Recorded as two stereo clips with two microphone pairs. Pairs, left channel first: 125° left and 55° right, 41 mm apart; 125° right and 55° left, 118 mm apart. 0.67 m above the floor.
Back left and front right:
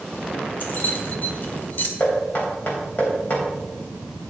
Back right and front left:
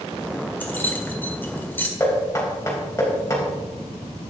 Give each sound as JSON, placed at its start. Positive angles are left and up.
{"t": 0.6, "sound": "keys jangling", "azimuth_deg": 160, "distance_m": 1.6}
{"t": 2.0, "sound": "knocking", "azimuth_deg": 170, "distance_m": 3.5}